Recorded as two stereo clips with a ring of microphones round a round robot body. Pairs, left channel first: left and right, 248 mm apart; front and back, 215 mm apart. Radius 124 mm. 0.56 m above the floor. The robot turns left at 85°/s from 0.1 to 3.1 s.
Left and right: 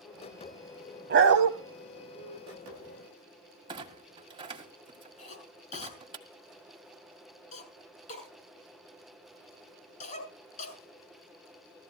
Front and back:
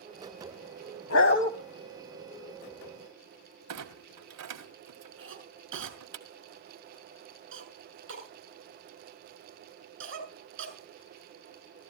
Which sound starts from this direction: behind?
A clunk, at 3.7 s.